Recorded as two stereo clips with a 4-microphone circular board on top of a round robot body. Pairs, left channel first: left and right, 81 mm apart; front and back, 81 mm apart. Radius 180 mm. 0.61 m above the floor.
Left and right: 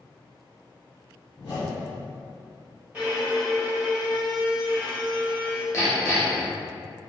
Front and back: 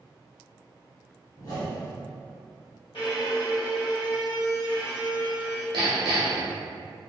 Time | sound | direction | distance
1.4 | a whoosh | 45° left | 0.9 m
2.9 | a violin | 25° right | 1.5 m
5.7 | hammering | 150° left | 0.6 m